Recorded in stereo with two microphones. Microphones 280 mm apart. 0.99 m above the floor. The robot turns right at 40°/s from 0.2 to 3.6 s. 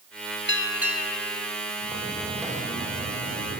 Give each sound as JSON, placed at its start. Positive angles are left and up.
{"t": 0.5, "sound": "a bell", "azimuth_deg": 40, "distance_m": 1.5}
{"t": 1.8, "sound": "footsteps", "side_deg": 25, "distance_m": 8.5}